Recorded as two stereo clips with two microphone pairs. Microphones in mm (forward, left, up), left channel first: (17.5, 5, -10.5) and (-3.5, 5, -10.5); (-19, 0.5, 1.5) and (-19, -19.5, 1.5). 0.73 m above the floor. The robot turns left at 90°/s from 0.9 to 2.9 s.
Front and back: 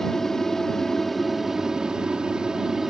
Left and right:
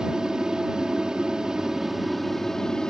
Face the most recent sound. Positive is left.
turn(degrees=115)